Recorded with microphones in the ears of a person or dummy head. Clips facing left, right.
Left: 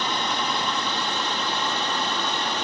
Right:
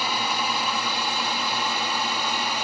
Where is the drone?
10° right (ahead or behind).